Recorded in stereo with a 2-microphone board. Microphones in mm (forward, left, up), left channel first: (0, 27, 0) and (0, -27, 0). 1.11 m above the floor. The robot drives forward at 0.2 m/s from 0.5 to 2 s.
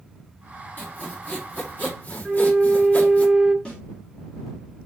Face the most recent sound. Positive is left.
turn(degrees=25)  # may be behind; listen again after turning